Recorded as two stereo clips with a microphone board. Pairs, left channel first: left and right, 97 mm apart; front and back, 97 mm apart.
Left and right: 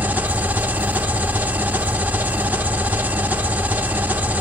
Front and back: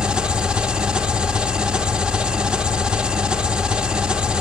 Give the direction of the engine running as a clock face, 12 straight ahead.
4 o'clock.